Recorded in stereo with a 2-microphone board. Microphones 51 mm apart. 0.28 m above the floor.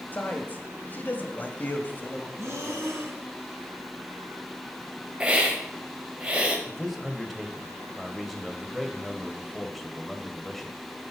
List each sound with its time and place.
0.1 s a man speaking: 35° left (ahead or behind), 1.3 m
2.4 s breathing: 65° right (ahead or behind), 2 m
5.2 s a hiss: 20° right (ahead or behind), 1.4 m
6.7 s a man speaking: centre (ahead or behind), 1.2 m